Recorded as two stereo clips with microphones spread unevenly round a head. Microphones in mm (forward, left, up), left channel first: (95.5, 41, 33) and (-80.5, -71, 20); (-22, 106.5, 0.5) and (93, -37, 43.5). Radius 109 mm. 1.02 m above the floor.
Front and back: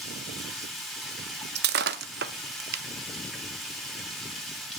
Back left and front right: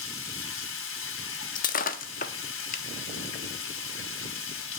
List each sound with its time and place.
0.0 s running water: 120° left, 2.5 m
1.6 s breaking glass: 175° right, 0.5 m